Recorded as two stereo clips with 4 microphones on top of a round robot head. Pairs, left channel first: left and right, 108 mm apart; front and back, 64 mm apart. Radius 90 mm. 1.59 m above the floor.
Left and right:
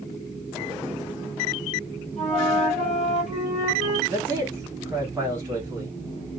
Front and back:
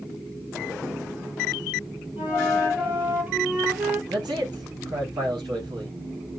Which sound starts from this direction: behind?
A man speaking, at 4.1 s.